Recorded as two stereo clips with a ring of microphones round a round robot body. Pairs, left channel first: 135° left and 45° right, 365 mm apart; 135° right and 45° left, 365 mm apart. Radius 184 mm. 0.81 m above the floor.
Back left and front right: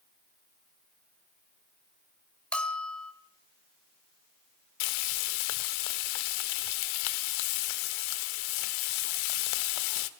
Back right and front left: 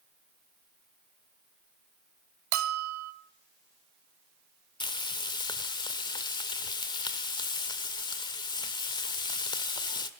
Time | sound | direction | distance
2.5 | a bell | 50° left | 1.4 m
4.8 | frying | 145° left | 1.4 m